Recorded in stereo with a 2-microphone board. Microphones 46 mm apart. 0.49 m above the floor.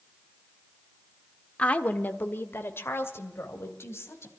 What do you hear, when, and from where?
1.6 s a woman speaking: 25° left (ahead or behind), 1.2 m; by 4.3 s 70° left (ahead or behind), 3.5 m